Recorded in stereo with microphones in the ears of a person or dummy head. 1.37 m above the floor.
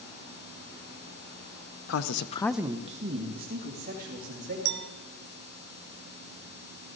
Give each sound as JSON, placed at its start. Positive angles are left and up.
{"t": 1.9, "sound": "a man speaking", "side_deg": 80, "distance_m": 0.9}
{"t": 4.7, "sound": "a clink", "side_deg": -60, "distance_m": 0.5}